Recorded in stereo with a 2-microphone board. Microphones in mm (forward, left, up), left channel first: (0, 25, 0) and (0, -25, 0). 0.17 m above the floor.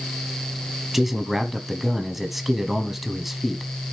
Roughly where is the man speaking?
Centre.